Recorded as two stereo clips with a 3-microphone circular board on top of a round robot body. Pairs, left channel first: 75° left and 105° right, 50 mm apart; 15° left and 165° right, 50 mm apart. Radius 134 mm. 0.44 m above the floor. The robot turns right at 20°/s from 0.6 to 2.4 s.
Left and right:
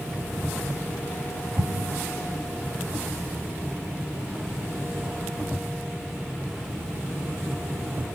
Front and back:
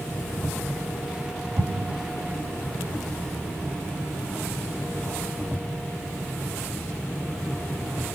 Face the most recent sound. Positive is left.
turn(degrees=-135)